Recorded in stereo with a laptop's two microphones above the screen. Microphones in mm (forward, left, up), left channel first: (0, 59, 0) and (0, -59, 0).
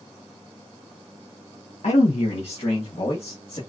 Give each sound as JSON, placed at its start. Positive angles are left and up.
{"t": 1.8, "sound": "a man speaking", "side_deg": 80, "distance_m": 0.6}